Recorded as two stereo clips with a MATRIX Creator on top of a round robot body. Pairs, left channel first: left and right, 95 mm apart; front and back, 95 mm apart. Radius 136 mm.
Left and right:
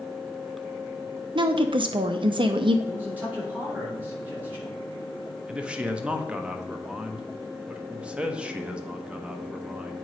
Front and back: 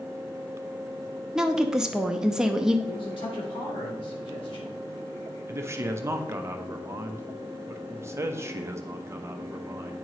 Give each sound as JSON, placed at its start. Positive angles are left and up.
{"t": 1.4, "sound": "a woman speaking", "azimuth_deg": -95, "distance_m": 0.8}
{"t": 2.9, "sound": "a man speaking", "azimuth_deg": -20, "distance_m": 3.5}
{"t": 5.5, "sound": "a man speaking", "azimuth_deg": -155, "distance_m": 1.1}